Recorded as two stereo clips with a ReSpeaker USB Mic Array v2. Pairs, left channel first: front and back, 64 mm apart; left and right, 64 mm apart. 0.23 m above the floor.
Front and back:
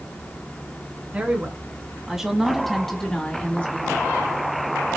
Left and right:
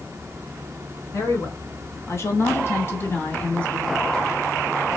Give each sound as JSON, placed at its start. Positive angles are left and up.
{"t": 1.1, "sound": "a woman speaking", "azimuth_deg": 115, "distance_m": 2.5}